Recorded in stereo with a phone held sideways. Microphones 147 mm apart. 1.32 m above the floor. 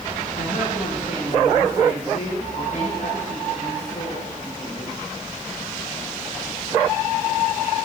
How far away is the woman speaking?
About 5.5 m.